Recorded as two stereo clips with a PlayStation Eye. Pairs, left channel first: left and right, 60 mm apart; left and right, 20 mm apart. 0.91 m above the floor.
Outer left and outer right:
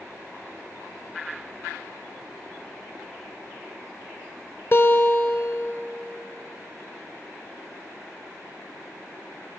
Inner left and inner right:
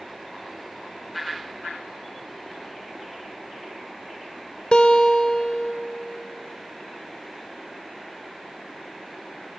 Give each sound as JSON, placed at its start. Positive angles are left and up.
{"t": 4.7, "sound": "a guitar", "side_deg": 40, "distance_m": 1.1}